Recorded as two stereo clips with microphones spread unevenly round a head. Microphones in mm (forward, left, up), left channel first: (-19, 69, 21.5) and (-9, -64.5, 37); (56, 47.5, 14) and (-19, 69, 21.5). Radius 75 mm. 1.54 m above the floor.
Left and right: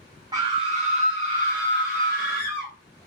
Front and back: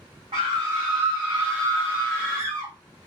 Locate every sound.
0.3 s a scream: 145° right, 0.7 m; by 2.7 s 95° right, 1.7 m